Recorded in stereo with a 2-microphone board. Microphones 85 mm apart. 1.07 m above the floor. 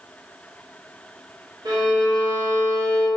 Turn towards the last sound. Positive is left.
turn(degrees=-50)  # may be behind; listen again after turning